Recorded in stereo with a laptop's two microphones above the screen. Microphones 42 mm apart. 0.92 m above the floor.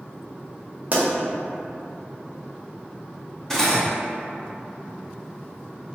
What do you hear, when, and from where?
0.9 s a pop: 40° right (ahead or behind), 0.6 m
3.5 s cutlery clinking: 10° left (ahead or behind), 0.5 m